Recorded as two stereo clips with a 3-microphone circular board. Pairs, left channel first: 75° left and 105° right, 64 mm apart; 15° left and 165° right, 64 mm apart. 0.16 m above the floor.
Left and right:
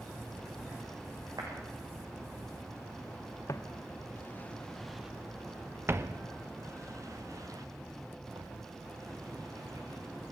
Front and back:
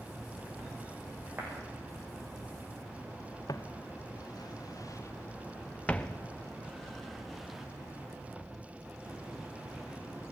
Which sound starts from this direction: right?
A clap, at 1.4 s.